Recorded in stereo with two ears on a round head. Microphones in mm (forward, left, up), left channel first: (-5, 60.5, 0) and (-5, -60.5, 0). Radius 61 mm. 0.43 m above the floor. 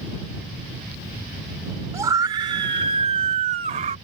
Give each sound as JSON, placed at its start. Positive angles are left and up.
{"t": 1.9, "sound": "a scream", "side_deg": -20}